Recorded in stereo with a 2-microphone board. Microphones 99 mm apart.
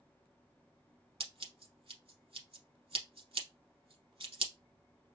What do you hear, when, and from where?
1.2 s scissors: 75° right (ahead or behind), 0.8 m